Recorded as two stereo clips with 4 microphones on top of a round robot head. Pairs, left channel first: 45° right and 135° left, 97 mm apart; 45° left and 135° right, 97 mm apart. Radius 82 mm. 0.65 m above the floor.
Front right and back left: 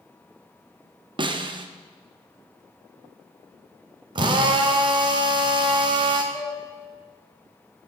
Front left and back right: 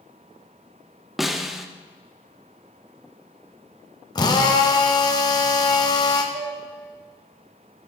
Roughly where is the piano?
Right.